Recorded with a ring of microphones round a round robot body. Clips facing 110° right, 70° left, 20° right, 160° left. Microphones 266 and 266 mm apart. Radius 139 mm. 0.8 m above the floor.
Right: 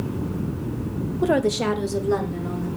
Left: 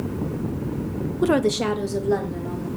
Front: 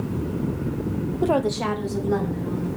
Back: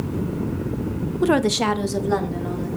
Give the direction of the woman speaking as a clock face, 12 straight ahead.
8 o'clock.